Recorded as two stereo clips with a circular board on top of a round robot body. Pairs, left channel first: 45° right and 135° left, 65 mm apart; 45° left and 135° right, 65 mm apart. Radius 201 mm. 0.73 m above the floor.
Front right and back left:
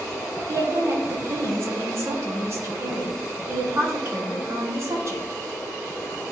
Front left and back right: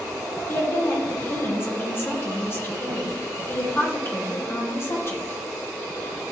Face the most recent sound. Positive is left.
turn(degrees=95)